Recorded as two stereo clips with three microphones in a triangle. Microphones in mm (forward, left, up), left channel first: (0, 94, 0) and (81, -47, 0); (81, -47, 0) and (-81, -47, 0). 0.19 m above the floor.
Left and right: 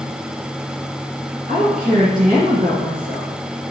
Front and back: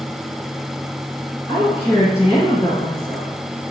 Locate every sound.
1.5 s a woman speaking: 60° right, 2.0 m